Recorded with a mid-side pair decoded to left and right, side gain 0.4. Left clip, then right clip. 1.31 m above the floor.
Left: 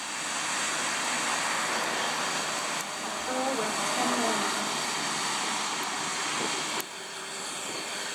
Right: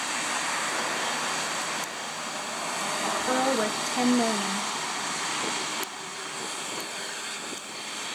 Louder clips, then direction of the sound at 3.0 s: Right 5 dB; 55° right.